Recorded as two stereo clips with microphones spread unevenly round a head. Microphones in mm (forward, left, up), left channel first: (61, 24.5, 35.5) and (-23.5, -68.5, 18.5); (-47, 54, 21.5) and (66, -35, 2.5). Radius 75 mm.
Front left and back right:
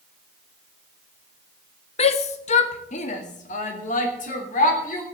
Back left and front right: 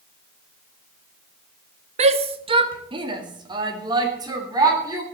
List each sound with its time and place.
2.0 s a shout: 10° left, 1.0 m; by 5.0 s 30° left, 3.5 m